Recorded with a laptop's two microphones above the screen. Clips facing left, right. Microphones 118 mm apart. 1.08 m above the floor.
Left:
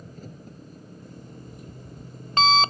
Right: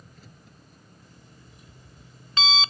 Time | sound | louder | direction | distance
0.0 | an engine running | left 10 dB | 45° left (ahead or behind) | ?
1.0 | an alarm clock | left 10 dB | 55° left (ahead or behind) | ?